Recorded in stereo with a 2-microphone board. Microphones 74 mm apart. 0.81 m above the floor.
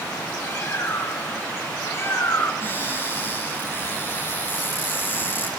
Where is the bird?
40° left (ahead or behind), 5.5 m.